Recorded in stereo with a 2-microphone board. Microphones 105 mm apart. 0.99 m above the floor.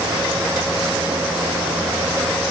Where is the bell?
No bell in this recording.